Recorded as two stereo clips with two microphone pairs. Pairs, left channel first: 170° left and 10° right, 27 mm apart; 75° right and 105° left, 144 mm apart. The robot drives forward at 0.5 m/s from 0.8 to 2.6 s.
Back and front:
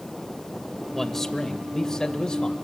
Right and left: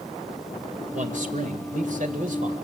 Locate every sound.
0.9 s a man speaking: 90° left, 1.8 m; by 2.5 s 115° left, 1.9 m